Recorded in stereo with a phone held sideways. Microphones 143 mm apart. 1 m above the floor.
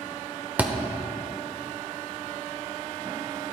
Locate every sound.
0.6 s a thud: 10° right (ahead or behind), 0.8 m